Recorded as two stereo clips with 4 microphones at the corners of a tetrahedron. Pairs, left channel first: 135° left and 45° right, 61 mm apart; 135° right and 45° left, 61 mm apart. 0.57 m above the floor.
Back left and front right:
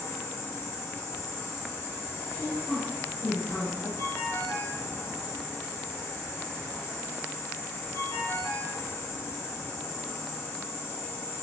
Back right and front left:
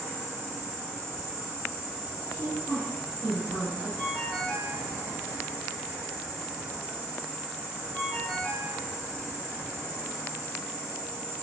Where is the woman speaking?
105° left, 1.1 m.